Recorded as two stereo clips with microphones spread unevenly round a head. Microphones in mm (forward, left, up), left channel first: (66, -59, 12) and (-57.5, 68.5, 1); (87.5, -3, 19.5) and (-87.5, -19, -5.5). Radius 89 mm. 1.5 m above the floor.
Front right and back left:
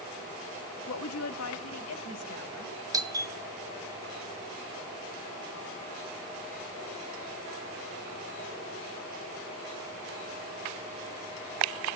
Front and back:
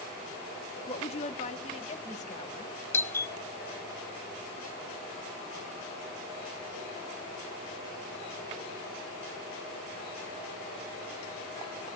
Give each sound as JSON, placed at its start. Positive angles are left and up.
{"t": 0.9, "sound": "a woman speaking", "azimuth_deg": -50, "distance_m": 0.9}
{"t": 2.9, "sound": "a doorbell", "azimuth_deg": 85, "distance_m": 0.8}